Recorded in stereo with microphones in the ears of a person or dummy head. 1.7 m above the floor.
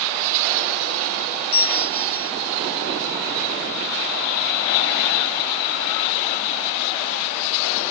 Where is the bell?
60° left (ahead or behind), 1.8 m.